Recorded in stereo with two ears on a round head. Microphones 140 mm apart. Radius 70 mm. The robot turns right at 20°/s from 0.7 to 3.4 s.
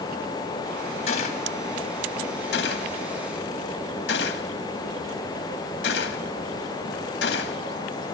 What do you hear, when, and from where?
1.1 s a gunshot: 45° left (ahead or behind), 2.5 m; by 7.6 s 85° left, 2.5 m